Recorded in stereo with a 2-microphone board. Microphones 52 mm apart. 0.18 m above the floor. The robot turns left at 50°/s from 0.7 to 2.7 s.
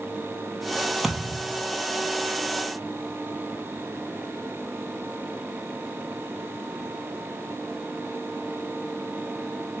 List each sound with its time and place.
1.0 s a thud: 10° right (ahead or behind), 0.9 m; by 1.6 s 20° left (ahead or behind), 0.9 m